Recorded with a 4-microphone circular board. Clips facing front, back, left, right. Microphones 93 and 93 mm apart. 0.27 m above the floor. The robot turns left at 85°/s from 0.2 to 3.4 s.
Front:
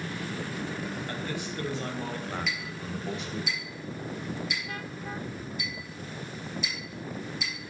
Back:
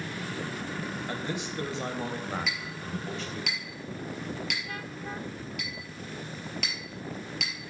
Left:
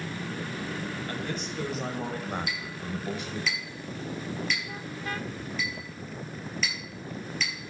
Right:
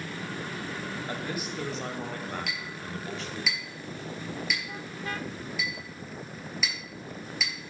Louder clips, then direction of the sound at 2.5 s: Even, left 2 dB; 90° right.